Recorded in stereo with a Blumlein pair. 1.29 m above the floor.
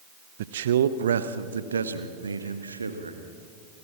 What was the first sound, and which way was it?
A man speaking, 55° right.